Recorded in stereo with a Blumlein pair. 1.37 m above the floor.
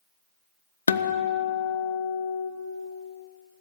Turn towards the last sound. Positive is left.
turn(degrees=70)